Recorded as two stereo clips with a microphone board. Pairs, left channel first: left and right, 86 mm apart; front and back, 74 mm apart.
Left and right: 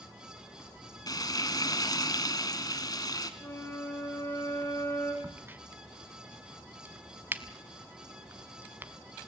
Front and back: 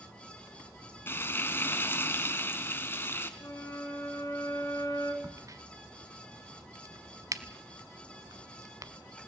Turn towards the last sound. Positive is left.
turn(degrees=-150)